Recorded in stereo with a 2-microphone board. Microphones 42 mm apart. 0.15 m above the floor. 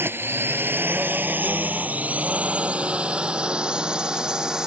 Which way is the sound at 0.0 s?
65° right (ahead or behind).